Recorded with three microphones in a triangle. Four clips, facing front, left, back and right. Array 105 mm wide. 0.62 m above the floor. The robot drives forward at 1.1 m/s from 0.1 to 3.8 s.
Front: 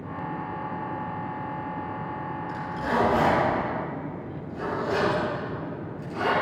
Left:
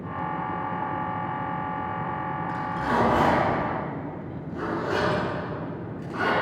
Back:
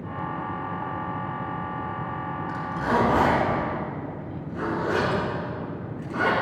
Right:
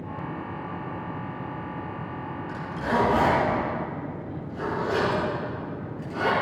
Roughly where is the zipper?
Behind left.